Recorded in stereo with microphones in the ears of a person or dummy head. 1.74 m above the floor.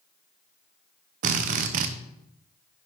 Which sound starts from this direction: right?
A drill, at 1.2 s.